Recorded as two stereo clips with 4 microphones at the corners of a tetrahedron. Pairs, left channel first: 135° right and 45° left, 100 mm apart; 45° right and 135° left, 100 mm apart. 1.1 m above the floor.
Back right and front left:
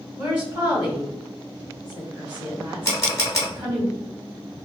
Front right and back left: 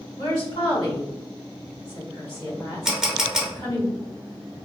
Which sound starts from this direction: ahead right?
A woman speaking, at 0.2 s.